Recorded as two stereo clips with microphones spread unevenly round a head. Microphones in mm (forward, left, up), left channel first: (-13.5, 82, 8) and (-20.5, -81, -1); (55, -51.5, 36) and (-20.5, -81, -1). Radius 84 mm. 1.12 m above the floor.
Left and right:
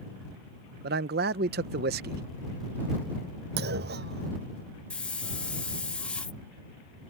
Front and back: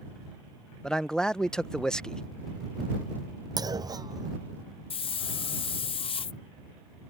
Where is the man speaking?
75° right.